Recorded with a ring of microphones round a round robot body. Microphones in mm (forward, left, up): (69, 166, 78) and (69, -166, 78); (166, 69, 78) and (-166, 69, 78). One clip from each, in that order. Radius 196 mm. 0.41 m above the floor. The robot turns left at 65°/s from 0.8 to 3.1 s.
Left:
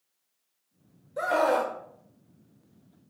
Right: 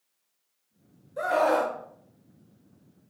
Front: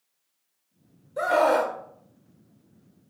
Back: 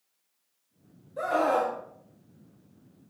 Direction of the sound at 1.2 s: 30° left.